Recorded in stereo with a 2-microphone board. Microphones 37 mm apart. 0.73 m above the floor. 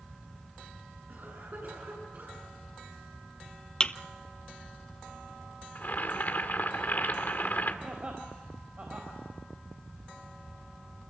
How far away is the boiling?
About 2 m.